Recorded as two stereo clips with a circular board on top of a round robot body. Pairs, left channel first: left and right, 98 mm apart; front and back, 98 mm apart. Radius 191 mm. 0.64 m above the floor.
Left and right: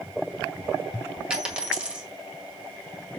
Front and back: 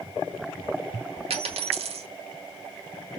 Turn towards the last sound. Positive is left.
turn(degrees=-170)